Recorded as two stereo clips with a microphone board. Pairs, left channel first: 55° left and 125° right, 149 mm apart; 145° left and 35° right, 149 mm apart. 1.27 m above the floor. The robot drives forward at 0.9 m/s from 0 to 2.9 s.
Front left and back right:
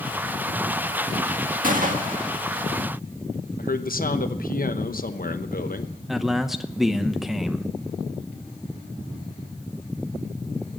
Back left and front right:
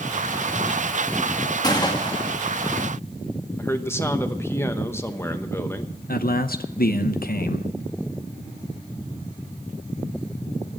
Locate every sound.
1.6 s a gunshot: 150° right, 1.8 m; by 2.3 s 155° right, 2.5 m
3.6 s a man speaking: 75° left, 0.9 m
6.1 s a man speaking: 145° left, 0.7 m